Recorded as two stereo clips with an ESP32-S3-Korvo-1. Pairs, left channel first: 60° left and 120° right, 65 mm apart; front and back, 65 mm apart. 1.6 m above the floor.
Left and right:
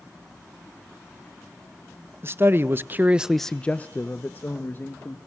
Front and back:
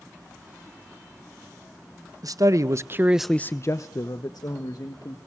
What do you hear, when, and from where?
2.2 s a man speaking: 170° right, 1.3 m; by 5.2 s 5° left, 2.5 m